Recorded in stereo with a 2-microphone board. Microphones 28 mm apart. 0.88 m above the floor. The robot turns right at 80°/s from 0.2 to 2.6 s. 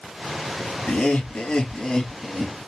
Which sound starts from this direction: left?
Laughter, at 0.9 s.